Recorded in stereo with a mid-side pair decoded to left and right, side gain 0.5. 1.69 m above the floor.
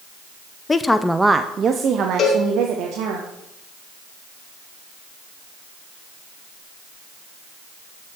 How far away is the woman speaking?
About 0.8 m.